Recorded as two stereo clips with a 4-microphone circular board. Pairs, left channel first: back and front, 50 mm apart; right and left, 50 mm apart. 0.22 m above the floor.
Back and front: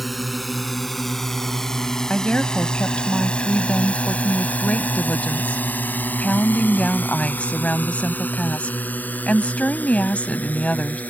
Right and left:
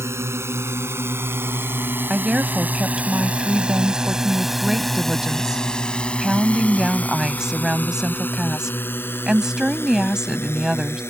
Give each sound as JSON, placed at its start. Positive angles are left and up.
{"t": 0.0, "sound": "a drone", "azimuth_deg": 90}
{"t": 2.1, "sound": "a woman speaking", "azimuth_deg": 155}